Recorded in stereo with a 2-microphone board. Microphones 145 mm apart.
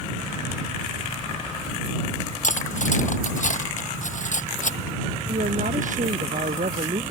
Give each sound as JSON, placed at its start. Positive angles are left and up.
{"t": 2.4, "sound": "cutlery clinking", "side_deg": 70}
{"t": 5.3, "sound": "a woman speaking", "side_deg": -75}